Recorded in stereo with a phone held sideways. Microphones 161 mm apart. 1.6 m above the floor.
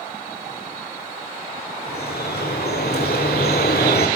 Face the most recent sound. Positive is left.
turn(degrees=80)